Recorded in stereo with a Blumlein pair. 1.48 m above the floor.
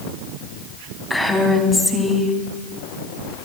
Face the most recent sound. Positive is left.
turn(degrees=5)